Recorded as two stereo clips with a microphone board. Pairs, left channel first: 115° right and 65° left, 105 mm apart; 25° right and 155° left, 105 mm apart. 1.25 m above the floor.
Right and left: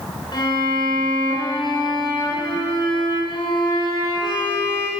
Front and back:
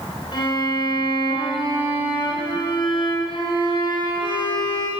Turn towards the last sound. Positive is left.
turn(degrees=-65)